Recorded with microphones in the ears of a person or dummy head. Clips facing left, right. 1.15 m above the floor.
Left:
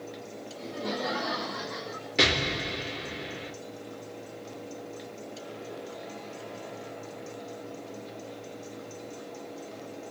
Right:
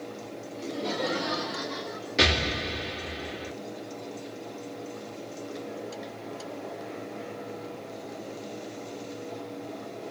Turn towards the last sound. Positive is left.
turn(degrees=-5)  # may be behind; listen again after turning